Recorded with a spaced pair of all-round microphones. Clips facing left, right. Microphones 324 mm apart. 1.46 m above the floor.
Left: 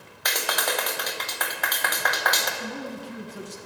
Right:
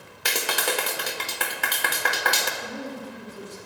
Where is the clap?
35° right (ahead or behind), 1.0 m.